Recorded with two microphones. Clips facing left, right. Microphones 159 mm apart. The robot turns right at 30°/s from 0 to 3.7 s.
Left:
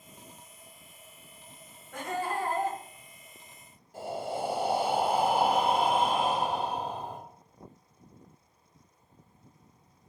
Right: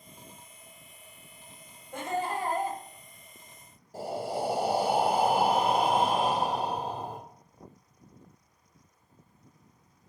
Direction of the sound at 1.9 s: 25° right (ahead or behind).